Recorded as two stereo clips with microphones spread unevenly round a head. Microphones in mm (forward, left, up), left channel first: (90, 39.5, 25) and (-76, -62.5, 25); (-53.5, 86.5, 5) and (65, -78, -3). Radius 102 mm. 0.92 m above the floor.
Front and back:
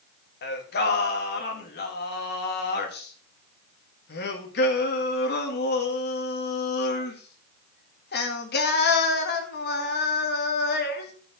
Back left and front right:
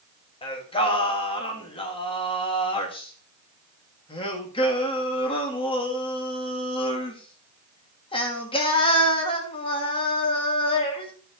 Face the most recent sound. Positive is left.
turn(degrees=60)